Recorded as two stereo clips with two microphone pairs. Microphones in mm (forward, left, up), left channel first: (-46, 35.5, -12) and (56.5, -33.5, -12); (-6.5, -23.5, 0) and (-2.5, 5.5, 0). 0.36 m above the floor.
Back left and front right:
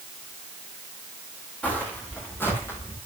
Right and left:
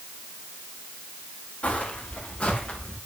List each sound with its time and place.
1.6 s footsteps: 135° right, 8 m; by 3.0 s 145° right, 8.5 m